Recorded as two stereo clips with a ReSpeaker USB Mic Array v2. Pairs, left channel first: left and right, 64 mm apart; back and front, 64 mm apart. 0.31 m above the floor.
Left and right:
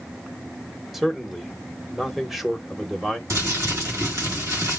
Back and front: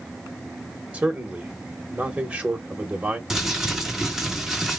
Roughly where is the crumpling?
Right.